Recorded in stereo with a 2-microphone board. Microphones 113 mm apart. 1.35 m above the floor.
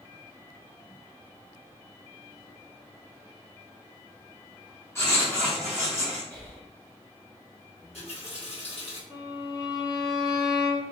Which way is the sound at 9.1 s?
30° left (ahead or behind).